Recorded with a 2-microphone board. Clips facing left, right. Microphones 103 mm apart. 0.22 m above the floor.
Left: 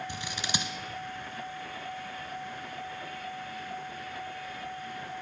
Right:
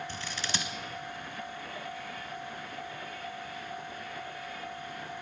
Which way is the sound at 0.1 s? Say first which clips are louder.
Left 2 dB; 15° left (ahead or behind).